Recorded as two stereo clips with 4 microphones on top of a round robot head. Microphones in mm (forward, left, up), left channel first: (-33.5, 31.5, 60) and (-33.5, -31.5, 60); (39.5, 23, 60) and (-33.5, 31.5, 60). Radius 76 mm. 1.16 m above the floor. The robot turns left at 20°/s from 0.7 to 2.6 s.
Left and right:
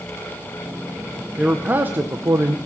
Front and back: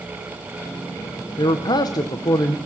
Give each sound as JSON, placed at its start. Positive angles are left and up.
{"t": 1.4, "sound": "a man speaking", "azimuth_deg": -20, "distance_m": 0.7}